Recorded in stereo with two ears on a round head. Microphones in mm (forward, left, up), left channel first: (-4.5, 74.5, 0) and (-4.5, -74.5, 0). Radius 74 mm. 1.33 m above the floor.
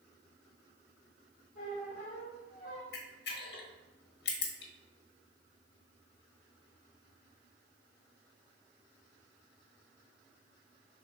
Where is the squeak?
50° left (ahead or behind), 3 m.